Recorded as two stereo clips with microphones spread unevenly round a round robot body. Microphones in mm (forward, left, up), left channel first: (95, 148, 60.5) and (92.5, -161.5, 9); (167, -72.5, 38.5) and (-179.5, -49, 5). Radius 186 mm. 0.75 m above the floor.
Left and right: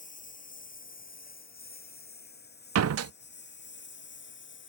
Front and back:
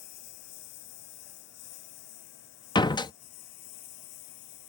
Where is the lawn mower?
25° left; by 4.7 s 35° left.